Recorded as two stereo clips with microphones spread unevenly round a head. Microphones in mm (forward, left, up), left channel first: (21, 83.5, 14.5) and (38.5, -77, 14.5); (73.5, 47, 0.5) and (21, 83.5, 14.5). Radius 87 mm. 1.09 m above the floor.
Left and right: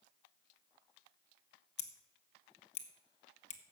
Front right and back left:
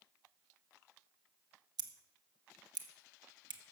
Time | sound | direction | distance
1.8 | scissors | 145° left | 1.1 m